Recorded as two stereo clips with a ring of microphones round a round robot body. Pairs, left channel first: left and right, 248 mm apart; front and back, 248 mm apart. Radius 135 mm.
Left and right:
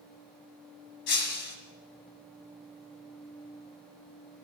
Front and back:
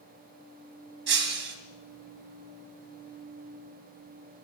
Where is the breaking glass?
140° left, 2 m.